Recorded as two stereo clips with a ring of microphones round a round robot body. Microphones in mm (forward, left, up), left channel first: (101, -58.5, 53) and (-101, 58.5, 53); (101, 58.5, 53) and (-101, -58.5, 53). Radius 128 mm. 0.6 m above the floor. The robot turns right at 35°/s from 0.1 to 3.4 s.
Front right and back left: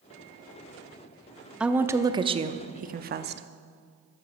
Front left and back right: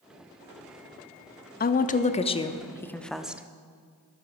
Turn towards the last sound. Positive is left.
turn(degrees=130)